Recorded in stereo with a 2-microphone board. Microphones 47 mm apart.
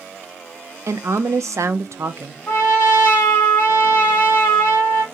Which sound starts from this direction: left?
A trumpet, at 2.5 s.